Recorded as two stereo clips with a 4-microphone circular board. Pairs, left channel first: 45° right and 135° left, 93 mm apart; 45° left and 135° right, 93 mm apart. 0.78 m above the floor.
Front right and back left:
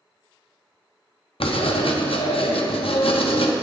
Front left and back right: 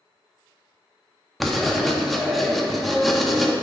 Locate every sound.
1.4 s writing: 45° right, 0.6 m